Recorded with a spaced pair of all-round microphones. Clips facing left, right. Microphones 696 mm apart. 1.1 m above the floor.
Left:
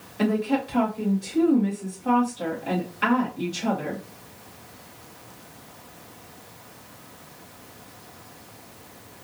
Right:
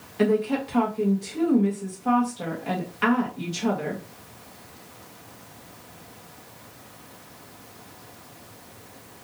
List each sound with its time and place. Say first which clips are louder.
0.2 s a woman speaking: right 1 dB; 30° right (ahead or behind), 1.4 m